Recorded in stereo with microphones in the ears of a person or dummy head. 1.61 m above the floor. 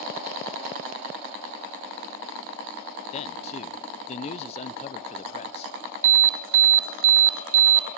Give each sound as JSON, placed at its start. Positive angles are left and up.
{"t": 3.1, "sound": "a man speaking", "side_deg": 40, "distance_m": 0.8}
{"t": 6.0, "sound": "an alarm", "side_deg": -75, "distance_m": 1.1}